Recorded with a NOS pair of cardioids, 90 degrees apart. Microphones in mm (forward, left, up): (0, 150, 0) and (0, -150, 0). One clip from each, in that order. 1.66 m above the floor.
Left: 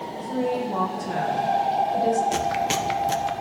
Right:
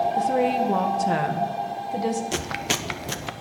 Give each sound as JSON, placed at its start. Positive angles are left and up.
{"t": 0.2, "sound": "a woman speaking", "azimuth_deg": -70, "distance_m": 1.7}
{"t": 2.3, "sound": "chewing", "azimuth_deg": -15, "distance_m": 0.9}